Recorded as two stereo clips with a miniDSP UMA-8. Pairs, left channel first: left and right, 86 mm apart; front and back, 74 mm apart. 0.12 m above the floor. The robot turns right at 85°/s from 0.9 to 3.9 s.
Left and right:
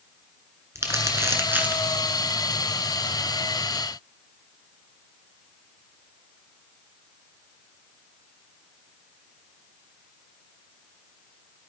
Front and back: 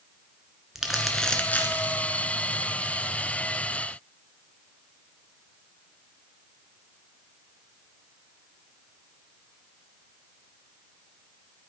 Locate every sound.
0.8 s crumpling: 100° right, 1.2 m; by 2.0 s 10° right, 1.2 m